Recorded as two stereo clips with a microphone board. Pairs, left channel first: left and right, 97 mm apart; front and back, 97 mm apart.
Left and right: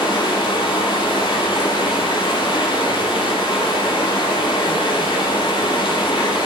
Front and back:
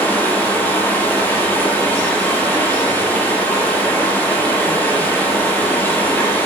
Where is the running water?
70° left, 5 m.